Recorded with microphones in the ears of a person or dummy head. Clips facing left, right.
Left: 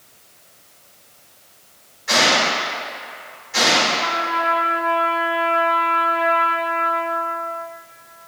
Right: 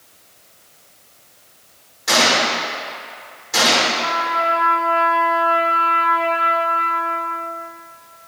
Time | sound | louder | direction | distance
2.1 | a gunshot | right 1 dB | 70° right (ahead or behind) | 2 m
3.9 | a trumpet | right 1 dB | 30° right (ahead or behind) | 1.8 m